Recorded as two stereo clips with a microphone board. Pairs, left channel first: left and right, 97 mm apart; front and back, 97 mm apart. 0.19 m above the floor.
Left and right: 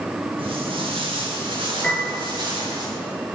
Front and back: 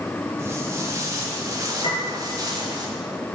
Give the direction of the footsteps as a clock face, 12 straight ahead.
4 o'clock.